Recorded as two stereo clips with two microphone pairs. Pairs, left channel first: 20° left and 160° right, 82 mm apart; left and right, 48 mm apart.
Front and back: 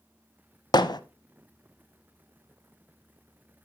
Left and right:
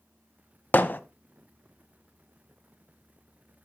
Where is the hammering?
45° left, 0.7 m.